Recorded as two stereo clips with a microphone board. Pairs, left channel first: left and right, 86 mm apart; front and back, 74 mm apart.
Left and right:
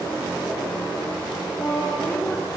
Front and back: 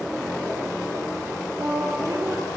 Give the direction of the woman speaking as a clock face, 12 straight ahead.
7 o'clock.